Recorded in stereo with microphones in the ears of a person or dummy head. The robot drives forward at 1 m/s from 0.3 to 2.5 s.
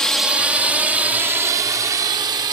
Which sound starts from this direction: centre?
A drone, at 0.0 s.